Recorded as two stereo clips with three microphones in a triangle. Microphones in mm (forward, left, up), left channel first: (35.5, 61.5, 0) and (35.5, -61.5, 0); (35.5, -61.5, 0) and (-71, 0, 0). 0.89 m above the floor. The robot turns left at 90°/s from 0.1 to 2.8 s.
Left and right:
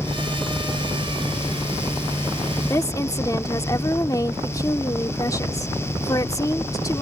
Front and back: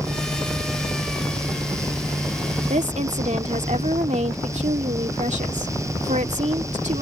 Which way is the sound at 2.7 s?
160° left.